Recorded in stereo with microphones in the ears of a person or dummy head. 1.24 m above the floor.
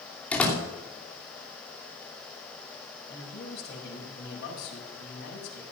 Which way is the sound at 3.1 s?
65° left (ahead or behind).